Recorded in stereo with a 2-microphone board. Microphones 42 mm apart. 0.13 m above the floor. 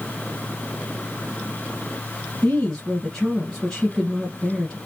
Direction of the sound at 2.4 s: 20° left (ahead or behind).